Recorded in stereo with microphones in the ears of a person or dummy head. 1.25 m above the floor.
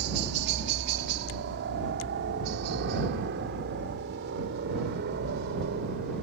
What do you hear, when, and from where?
0.0 s a helicopter: 55° right (ahead or behind)